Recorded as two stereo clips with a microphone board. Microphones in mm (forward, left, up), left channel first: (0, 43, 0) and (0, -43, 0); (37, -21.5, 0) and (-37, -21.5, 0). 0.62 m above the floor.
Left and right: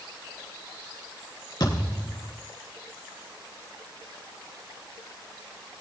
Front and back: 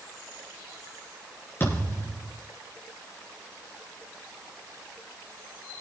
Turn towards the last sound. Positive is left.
turn(degrees=55)